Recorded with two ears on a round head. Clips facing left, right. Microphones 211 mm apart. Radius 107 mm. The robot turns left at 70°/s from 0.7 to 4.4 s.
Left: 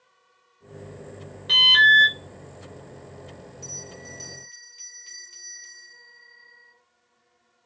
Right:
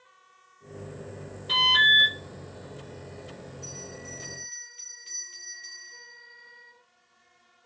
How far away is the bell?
About 1.2 m.